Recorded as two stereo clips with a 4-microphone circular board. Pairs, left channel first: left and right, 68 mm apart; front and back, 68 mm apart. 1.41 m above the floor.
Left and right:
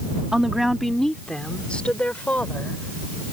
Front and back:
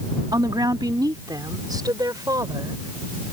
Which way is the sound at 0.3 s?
170° right.